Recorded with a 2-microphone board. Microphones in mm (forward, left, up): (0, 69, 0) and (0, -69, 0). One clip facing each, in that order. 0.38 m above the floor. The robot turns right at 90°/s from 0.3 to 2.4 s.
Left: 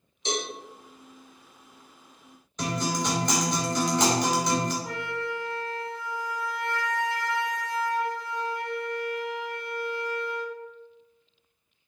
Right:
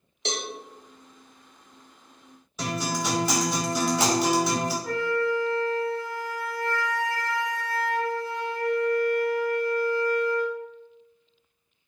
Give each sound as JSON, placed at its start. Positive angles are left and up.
{"t": 0.2, "sound": "a cowbell", "side_deg": -70, "distance_m": 0.6}
{"t": 2.6, "sound": "a guitar", "side_deg": -5, "distance_m": 0.9}
{"t": 4.8, "sound": "a flute", "side_deg": 20, "distance_m": 1.0}